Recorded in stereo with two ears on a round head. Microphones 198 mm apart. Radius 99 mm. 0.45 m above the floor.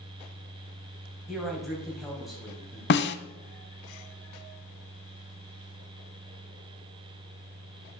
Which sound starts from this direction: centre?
A man speaking, at 1.3 s.